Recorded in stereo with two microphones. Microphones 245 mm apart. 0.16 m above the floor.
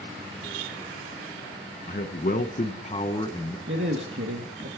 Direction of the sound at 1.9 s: 45° left (ahead or behind).